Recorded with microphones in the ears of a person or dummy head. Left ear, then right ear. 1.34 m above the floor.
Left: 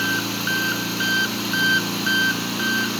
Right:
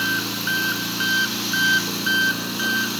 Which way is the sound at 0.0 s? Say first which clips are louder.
Even; 5° right (ahead or behind).